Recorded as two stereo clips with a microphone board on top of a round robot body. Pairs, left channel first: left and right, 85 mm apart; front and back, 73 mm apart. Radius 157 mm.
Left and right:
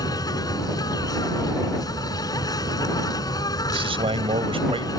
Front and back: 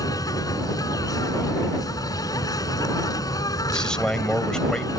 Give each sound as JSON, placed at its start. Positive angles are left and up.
{"t": 0.0, "sound": "an insect", "azimuth_deg": 45}
{"t": 3.7, "sound": "a man speaking", "azimuth_deg": -80}